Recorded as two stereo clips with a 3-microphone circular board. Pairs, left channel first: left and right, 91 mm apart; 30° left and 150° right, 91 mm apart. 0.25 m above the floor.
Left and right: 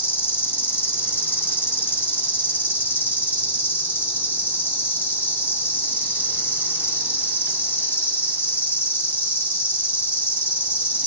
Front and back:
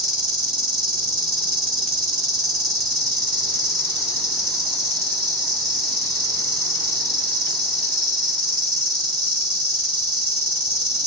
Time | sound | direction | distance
0.0 | an insect | 115° left | 1.5 m